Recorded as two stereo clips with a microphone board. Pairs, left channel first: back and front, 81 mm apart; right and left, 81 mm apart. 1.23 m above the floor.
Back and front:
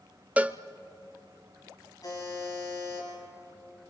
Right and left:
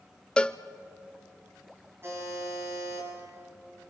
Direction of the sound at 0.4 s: 35° right.